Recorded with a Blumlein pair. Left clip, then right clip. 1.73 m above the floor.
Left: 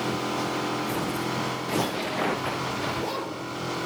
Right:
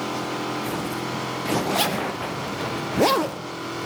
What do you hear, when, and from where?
1.7 s a zipper: 50° right, 0.7 m